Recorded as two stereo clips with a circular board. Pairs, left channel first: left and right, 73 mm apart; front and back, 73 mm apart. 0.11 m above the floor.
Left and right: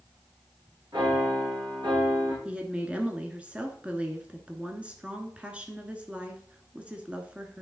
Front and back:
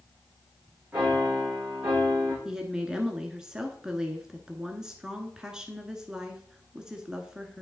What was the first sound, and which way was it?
A piano, 110° right.